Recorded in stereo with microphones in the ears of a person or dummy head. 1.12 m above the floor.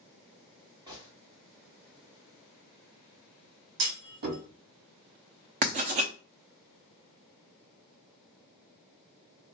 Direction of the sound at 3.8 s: 75° right (ahead or behind).